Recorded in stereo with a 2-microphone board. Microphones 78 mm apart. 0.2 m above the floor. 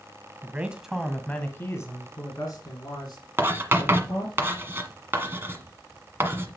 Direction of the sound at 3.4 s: 30° right (ahead or behind).